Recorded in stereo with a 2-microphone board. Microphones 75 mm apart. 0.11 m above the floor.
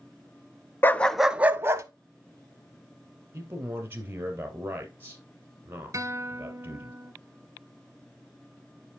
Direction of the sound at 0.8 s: 30° left (ahead or behind).